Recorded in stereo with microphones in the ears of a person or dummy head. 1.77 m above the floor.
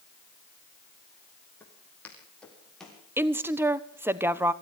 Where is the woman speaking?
10° right (ahead or behind), 1.1 m.